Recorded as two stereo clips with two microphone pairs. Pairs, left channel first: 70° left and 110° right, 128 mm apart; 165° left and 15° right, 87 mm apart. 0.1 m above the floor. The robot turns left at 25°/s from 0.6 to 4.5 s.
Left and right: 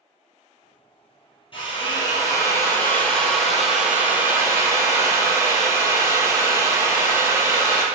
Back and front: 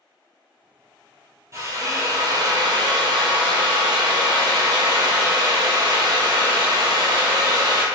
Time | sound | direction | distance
1.5 | a drill | 35° left | 1.0 m